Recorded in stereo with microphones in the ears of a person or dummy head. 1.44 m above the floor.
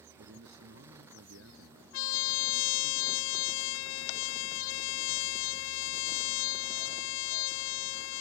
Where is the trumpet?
85° left.